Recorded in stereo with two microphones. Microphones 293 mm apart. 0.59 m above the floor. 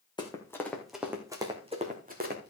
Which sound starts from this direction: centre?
Running footsteps, at 0.2 s.